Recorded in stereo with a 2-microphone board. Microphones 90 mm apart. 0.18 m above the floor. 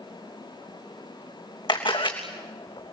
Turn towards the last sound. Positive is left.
turn(degrees=60)  # may be behind; listen again after turning